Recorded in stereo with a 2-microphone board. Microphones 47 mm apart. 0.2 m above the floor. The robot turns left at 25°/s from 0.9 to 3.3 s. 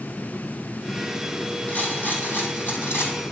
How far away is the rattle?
About 3 m.